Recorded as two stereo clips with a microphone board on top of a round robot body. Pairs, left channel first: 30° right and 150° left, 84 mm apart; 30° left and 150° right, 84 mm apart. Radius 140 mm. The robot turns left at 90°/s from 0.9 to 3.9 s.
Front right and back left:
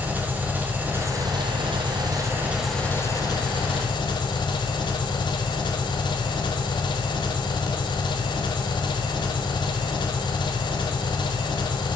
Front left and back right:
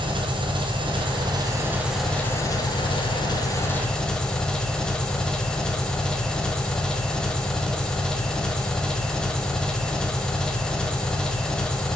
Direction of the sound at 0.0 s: 140° right.